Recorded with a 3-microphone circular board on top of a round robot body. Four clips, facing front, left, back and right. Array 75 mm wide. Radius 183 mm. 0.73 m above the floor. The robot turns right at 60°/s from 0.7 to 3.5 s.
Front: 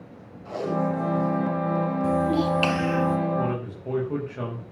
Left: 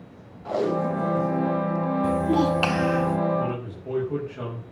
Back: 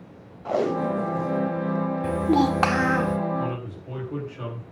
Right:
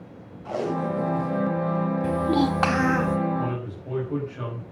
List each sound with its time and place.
0.5 s tape being pulled: 165° left, 2 m; by 1.5 s 150° right, 2 m
2.0 s a child speaking: 170° left, 2.5 m; by 3.2 s 120° right, 2.5 m
3.4 s a man speaking: 5° right, 7 m; by 4.6 s straight ahead, 7 m